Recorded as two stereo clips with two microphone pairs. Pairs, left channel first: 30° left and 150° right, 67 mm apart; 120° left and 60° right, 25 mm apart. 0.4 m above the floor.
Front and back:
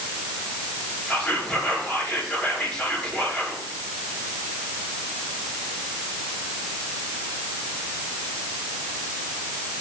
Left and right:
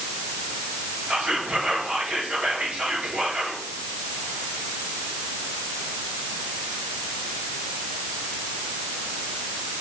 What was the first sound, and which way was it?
Whispering, 45° right.